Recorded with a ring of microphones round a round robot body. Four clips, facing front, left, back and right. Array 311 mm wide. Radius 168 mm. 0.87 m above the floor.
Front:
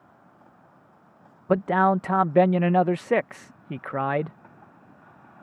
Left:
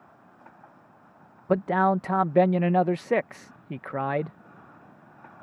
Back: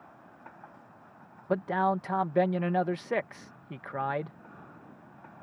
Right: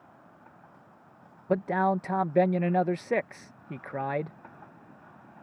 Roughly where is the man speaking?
Ahead left.